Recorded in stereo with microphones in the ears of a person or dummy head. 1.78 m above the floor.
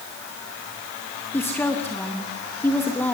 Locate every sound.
1.3 s a woman speaking: 15° left (ahead or behind), 3 m